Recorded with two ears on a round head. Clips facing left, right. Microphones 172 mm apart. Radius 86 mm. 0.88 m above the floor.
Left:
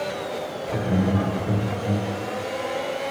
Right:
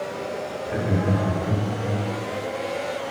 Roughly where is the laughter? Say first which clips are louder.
Left 1 dB; centre.